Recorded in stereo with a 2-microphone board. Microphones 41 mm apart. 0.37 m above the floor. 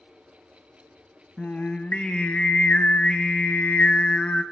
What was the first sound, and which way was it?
Singing, 40° left (ahead or behind).